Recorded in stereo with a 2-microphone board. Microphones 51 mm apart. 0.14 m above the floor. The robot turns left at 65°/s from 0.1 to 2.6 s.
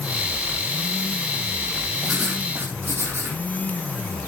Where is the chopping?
No chopping in this recording.